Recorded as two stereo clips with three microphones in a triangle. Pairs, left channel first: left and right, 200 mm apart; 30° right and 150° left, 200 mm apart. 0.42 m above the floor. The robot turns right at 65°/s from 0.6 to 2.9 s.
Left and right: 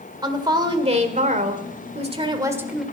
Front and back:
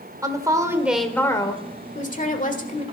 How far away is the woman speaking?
About 1.7 m.